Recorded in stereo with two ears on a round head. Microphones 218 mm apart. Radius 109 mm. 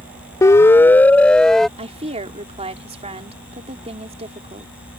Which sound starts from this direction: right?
A woman speaking, at 1.8 s.